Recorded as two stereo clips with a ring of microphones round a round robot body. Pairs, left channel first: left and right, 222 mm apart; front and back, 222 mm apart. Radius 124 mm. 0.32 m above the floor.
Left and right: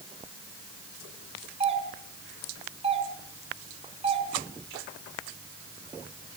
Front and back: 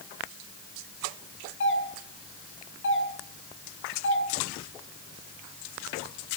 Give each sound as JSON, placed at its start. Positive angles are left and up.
{"t": 1.6, "sound": "a doorbell", "azimuth_deg": -25, "distance_m": 5.0}